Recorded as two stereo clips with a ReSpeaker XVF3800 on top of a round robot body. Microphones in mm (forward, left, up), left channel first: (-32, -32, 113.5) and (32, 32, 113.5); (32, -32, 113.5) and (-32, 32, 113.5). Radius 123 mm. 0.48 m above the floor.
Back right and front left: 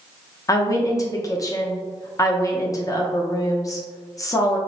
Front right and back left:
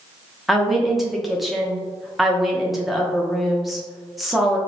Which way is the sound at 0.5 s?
135° right.